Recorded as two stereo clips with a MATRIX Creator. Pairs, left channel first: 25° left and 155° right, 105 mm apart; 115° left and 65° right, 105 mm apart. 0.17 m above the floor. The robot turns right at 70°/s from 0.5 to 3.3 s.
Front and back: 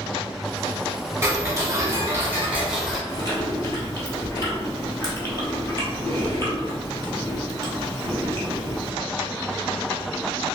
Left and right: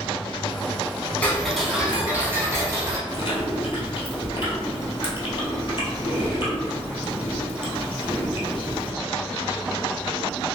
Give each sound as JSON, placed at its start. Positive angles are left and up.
{"t": 1.2, "sound": "ticking", "azimuth_deg": 175, "distance_m": 1.0}
{"t": 3.1, "sound": "chewing", "azimuth_deg": 65, "distance_m": 1.3}